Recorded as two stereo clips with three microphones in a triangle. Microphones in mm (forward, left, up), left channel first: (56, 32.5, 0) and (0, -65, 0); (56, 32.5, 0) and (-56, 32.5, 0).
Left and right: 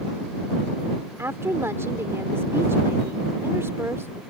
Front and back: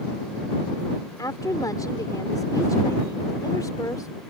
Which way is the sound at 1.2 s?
55° right.